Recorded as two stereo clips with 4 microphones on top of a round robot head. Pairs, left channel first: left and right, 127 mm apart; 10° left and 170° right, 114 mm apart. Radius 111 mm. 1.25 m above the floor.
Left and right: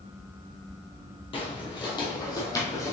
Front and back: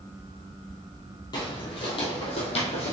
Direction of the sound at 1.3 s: 55° left.